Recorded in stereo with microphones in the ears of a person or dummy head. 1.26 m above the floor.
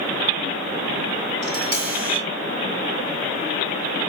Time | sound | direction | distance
1.4 | tapping | 80° right | 5 m